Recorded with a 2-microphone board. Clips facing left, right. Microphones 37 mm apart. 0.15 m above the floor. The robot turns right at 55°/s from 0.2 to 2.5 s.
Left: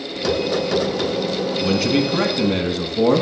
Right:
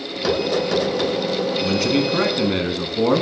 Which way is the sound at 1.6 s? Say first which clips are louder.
Left 2 dB; 5° left (ahead or behind).